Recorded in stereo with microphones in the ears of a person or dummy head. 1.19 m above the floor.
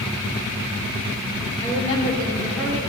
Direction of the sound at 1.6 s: 25° left (ahead or behind).